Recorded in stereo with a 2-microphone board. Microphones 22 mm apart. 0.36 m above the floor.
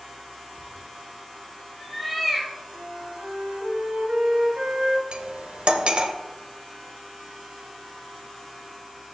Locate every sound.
0.6 s a cat meowing: 20° left (ahead or behind), 1.3 m; by 2.5 s 10° right (ahead or behind), 2.0 m
2.7 s a flute: 70° right (ahead or behind), 1.9 m
5.1 s cutlery clinking: 50° right (ahead or behind), 0.9 m